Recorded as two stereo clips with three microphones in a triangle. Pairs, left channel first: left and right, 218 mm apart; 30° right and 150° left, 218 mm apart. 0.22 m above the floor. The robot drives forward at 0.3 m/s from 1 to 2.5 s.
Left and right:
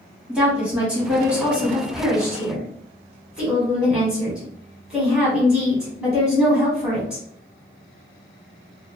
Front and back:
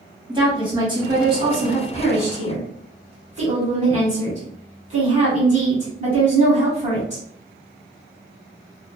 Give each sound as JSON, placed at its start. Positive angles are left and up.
{"t": 0.3, "sound": "a woman speaking", "azimuth_deg": -170, "distance_m": 1.5}